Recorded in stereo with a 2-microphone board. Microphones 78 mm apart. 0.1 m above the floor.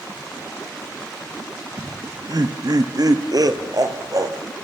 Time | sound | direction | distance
1.8 | laughter | 50° right (ahead or behind) | 1.9 m